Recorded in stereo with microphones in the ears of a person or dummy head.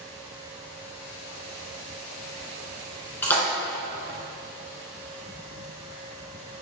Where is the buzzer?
No buzzer in this recording.